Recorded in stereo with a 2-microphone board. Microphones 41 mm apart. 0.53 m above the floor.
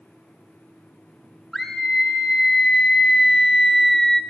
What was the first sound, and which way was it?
A scream, centre (ahead or behind).